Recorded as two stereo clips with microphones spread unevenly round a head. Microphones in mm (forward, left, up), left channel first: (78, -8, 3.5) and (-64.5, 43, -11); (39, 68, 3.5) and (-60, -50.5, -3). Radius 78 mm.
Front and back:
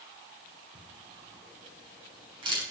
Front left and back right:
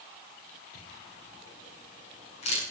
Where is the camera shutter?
100° left, 9 m.